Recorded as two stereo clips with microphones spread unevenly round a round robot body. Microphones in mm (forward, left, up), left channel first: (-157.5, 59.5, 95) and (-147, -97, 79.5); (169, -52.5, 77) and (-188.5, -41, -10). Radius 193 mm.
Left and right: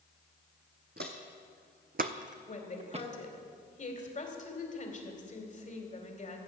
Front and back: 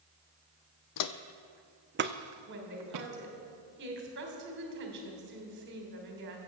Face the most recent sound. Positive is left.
turn(degrees=130)